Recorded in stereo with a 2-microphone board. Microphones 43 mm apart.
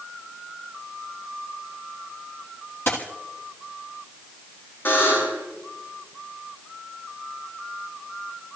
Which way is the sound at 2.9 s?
55° left (ahead or behind).